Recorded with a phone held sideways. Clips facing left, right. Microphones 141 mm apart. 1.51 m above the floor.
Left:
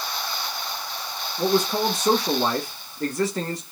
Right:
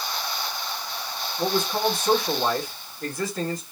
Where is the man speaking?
85° left, 1.8 m.